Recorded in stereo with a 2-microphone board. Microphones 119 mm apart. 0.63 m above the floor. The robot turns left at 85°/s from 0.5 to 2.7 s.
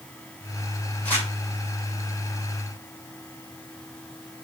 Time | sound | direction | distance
1.1 | crumpling | 10° left (ahead or behind) | 2.5 m